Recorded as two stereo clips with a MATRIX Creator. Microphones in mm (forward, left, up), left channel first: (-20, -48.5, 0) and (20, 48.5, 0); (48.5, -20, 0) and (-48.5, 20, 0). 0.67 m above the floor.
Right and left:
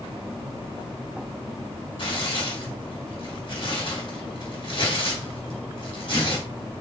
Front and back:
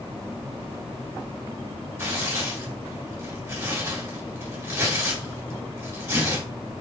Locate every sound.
2.0 s tearing paper: 135° right, 2 m